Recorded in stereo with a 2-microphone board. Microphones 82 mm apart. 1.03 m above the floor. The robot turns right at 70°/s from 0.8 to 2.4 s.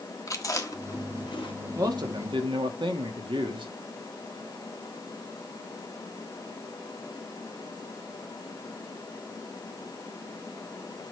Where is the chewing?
40° left (ahead or behind), 1.5 m; by 1.6 s 85° left, 1.5 m.